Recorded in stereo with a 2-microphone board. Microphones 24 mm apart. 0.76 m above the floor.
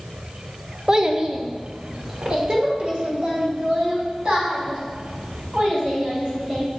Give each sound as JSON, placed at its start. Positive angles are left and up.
{"t": 0.9, "sound": "a child speaking", "side_deg": -30, "distance_m": 0.6}